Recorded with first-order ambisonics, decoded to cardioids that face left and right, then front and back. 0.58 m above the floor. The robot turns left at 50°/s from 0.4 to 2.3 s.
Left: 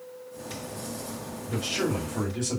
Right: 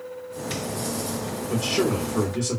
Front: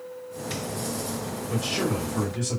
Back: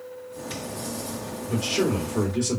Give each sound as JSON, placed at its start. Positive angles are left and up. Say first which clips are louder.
{"t": 1.5, "sound": "a man speaking", "louder": "right 4 dB, back 3 dB", "azimuth_deg": -90, "distance_m": 1.6}